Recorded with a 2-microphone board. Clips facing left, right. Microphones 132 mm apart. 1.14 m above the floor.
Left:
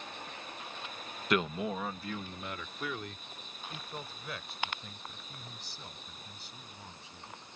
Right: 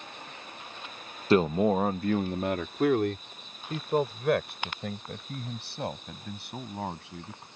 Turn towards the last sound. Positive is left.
turn(degrees=-80)